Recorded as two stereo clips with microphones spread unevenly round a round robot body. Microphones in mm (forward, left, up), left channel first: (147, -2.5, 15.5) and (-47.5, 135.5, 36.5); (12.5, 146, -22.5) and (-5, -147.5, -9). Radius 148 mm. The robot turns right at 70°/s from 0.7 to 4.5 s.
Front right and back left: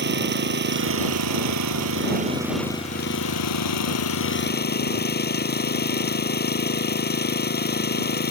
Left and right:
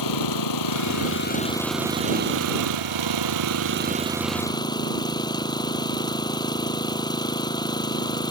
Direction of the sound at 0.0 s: 105° left.